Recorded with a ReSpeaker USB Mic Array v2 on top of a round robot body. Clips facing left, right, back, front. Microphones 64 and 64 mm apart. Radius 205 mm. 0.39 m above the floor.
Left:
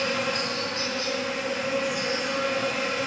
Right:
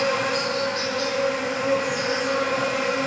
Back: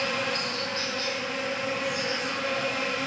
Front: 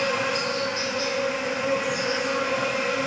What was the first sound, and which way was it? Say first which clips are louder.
An insect: right 4 dB, front 4 dB; 70° right.